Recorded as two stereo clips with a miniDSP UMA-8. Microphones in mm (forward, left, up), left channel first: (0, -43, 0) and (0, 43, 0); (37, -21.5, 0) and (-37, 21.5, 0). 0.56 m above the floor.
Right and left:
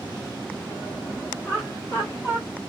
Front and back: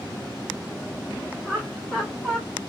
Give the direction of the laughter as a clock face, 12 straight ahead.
5 o'clock.